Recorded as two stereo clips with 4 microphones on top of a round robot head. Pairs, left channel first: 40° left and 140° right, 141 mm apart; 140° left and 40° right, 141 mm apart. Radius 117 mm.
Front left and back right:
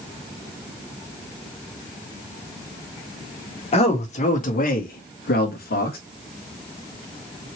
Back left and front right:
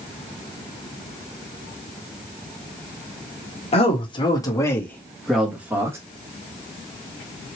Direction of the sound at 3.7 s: 90° left.